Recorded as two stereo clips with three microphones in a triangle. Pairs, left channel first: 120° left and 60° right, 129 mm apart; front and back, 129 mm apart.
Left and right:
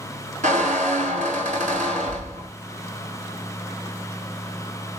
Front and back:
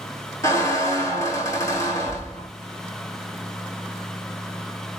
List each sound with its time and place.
0.4 s a squeak: 65° right, 0.8 m